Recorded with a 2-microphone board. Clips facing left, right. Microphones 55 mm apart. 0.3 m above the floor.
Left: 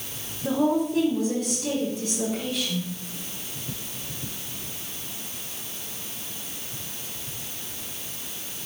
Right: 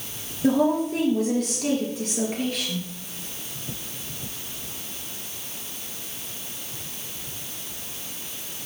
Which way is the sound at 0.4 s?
80° right.